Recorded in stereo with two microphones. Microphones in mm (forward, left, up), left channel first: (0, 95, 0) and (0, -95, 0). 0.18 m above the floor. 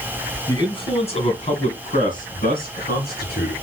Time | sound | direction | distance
0.5 | a man speaking | 20° left (ahead or behind) | 1.7 m